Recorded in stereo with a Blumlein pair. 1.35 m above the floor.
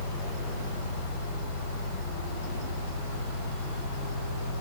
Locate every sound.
0.0 s a fan: 45° left, 3 m